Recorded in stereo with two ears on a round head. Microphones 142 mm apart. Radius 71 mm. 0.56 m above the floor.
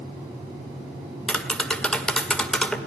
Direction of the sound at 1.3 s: 5° left (ahead or behind).